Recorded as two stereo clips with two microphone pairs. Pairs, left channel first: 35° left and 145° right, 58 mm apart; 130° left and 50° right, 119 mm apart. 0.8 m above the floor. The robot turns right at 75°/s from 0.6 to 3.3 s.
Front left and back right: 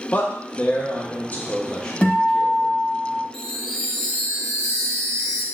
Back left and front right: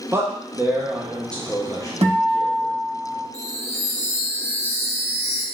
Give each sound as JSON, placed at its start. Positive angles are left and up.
{"t": 0.1, "sound": "a man speaking", "azimuth_deg": -5, "distance_m": 1.0}
{"t": 2.0, "sound": "a guitar", "azimuth_deg": -35, "distance_m": 2.0}
{"t": 3.3, "sound": "a chime", "azimuth_deg": 115, "distance_m": 0.9}